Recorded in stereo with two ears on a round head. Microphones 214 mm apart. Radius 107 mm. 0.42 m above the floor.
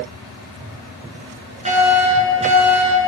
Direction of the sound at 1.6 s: 25° right (ahead or behind).